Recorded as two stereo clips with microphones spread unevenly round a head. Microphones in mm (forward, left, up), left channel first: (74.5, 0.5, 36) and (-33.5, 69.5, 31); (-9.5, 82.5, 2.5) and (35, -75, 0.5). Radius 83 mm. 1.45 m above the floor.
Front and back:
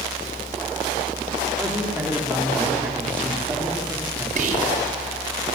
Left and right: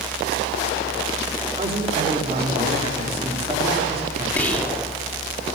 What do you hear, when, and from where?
1.6 s a man speaking: 130° right, 4 m
4.4 s whispering: 175° right, 3.5 m